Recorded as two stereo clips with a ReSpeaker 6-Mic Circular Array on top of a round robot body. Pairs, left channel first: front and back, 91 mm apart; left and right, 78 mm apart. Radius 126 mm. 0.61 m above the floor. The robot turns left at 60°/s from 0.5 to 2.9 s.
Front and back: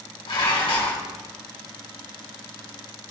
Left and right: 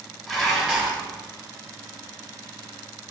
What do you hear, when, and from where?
0.3 s dishes clattering: straight ahead, 4 m; by 1.0 s 30° right, 4 m